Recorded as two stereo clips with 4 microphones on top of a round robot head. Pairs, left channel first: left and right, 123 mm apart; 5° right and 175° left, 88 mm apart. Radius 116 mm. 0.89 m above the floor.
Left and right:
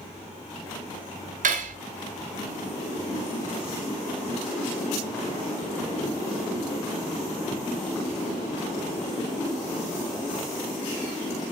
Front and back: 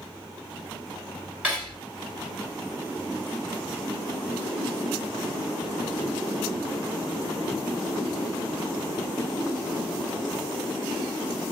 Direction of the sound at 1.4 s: 100° right.